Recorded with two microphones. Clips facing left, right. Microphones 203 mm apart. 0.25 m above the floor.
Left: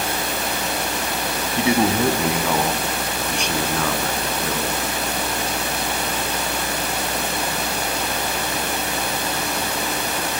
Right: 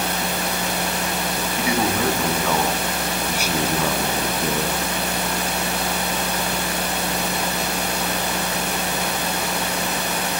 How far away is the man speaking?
About 2 m.